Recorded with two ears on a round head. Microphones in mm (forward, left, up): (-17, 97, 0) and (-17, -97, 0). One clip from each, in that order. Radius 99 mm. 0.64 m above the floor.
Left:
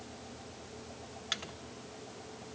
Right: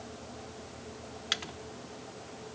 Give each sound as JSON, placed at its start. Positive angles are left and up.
{"t": 1.3, "sound": "a microwave", "side_deg": -15, "distance_m": 0.8}